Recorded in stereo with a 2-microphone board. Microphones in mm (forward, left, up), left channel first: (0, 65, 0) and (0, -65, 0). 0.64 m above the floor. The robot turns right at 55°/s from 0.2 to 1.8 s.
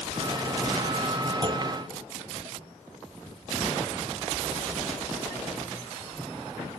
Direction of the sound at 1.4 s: 35° right (ahead or behind).